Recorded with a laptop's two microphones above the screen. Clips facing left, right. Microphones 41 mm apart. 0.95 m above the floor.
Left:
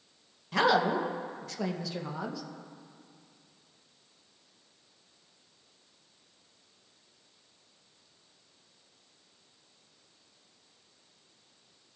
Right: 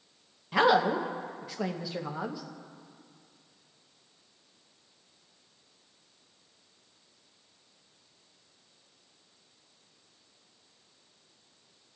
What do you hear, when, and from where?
0.5 s a woman speaking: 15° right (ahead or behind), 0.8 m